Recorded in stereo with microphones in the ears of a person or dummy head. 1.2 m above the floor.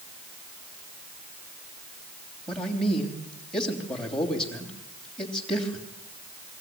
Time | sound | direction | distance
2.5 | a man speaking | 5° left (ahead or behind) | 3 m